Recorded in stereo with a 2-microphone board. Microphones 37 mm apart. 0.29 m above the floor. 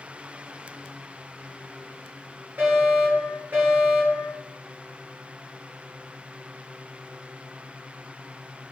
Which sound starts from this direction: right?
A fire alarm, at 2.6 s.